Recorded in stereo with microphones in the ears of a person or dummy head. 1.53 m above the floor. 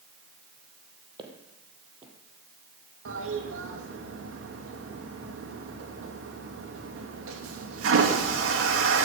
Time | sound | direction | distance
1.2 | footsteps | 30° right (ahead or behind) | 3 m
3.0 | a toilet flushing | 85° right | 2.5 m